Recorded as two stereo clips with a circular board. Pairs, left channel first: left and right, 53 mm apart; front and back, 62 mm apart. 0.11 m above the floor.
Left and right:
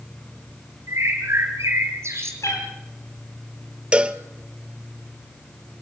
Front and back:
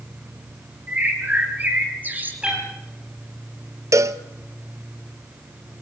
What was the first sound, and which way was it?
A bird, 120° right.